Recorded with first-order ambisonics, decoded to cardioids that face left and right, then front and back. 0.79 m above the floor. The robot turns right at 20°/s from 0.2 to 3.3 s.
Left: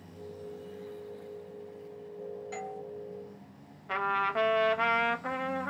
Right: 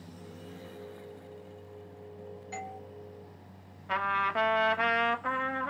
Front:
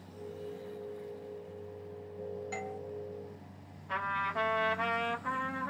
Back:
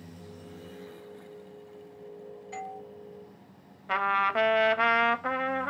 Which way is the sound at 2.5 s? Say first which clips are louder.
Right 2 dB, back 5 dB; 15° left.